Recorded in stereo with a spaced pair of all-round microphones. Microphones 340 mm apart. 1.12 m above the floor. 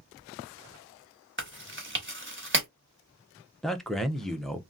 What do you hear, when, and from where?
1.4 s chewing: 35° right (ahead or behind), 1.0 m
3.6 s a man speaking: centre (ahead or behind), 0.5 m